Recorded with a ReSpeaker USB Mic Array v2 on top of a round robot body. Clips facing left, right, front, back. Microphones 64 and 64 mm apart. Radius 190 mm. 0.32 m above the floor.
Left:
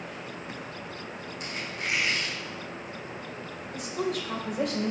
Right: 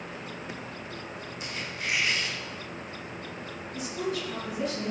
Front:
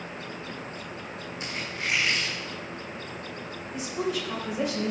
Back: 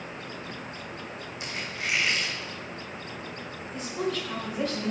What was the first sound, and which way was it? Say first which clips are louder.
A squeak: left 1 dB, front 1 dB; 50° left.